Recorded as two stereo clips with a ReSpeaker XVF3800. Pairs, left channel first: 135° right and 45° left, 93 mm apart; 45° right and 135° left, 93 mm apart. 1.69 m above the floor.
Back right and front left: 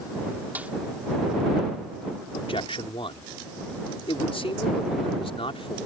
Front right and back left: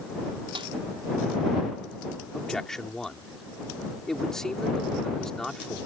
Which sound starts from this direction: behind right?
A man speaking, at 2.3 s.